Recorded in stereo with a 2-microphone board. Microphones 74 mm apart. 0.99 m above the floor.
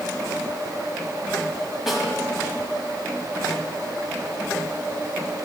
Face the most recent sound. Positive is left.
turn(degrees=-5)  # may be behind; listen again after turning